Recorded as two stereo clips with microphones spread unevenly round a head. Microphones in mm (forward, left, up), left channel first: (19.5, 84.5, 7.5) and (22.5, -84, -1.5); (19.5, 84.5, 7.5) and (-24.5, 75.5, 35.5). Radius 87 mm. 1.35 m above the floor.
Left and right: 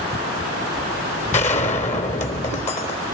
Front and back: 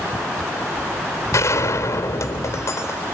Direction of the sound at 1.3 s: 45° left.